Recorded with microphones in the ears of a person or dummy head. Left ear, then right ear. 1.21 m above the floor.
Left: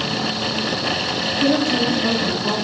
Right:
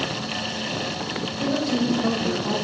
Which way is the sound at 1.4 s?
15° left (ahead or behind).